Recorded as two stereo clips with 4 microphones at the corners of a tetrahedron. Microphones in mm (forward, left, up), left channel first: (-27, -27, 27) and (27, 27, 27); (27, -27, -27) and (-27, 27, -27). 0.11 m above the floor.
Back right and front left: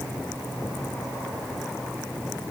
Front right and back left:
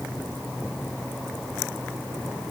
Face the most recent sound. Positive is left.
No sound to turn to.